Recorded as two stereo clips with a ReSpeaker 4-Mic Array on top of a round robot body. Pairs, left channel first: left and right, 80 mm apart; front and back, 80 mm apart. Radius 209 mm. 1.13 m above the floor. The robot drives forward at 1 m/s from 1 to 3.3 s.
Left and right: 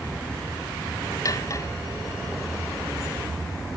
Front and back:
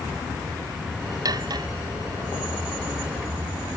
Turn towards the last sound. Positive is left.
turn(degrees=155)